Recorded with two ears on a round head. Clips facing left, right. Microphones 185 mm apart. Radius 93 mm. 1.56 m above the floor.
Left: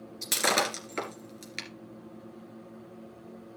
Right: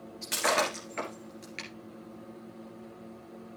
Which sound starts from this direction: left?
Breaking glass, at 0.2 s.